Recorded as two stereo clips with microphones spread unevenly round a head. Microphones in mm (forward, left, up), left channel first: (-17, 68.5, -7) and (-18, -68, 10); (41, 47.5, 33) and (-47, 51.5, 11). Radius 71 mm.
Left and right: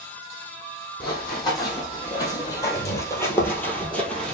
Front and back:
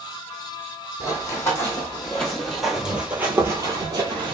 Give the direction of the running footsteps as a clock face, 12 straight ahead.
11 o'clock.